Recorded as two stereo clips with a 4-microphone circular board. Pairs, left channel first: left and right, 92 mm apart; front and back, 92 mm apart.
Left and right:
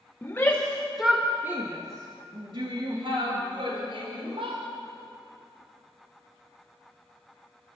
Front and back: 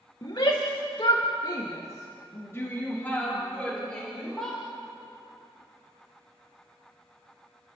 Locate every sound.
0.2 s a shout: 30° left, 2 m; by 4.6 s 85° right, 5 m